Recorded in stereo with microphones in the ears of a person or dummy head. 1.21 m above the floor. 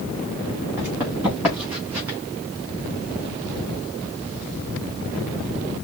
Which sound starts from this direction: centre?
Running footsteps, at 0.8 s.